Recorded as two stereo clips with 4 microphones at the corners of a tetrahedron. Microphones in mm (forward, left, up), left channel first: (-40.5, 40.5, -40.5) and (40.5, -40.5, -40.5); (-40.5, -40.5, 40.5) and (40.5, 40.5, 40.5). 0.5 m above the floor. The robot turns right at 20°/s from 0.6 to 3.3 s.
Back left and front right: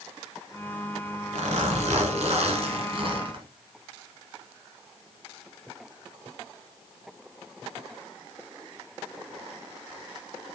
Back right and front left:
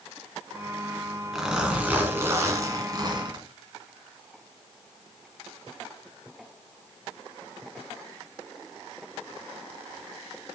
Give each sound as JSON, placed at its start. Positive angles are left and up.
{"t": 1.3, "sound": "a zipper", "azimuth_deg": -40, "distance_m": 1.6}